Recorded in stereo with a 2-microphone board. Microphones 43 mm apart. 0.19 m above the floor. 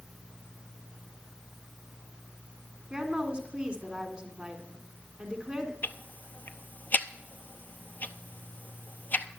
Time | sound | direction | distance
2.9 | a woman speaking | 25° right (ahead or behind) | 2 m
5.8 | ticking | 45° left (ahead or behind) | 0.6 m